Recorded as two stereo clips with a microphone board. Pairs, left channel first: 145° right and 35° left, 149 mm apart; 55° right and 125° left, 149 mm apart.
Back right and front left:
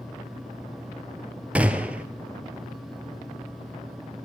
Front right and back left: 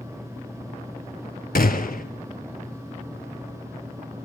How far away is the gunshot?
About 1.0 m.